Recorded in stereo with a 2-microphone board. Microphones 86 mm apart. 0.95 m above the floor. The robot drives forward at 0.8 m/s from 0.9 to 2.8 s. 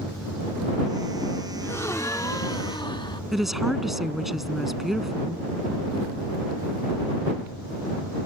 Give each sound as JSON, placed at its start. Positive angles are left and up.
{"t": 1.6, "sound": "a gasp", "side_deg": 30}
{"t": 3.3, "sound": "a woman speaking", "side_deg": -5}